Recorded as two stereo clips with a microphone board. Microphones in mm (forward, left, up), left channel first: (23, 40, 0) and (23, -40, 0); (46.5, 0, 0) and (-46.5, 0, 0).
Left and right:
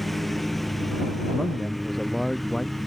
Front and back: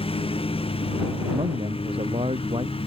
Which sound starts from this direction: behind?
A man speaking, at 1.3 s.